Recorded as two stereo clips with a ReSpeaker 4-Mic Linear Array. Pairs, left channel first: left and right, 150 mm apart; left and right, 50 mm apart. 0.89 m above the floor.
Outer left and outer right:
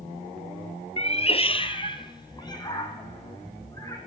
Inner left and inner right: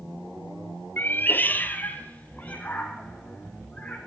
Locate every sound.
1.0 s a cat meowing: 45° left (ahead or behind), 1.1 m; by 4.0 s 20° left (ahead or behind), 5 m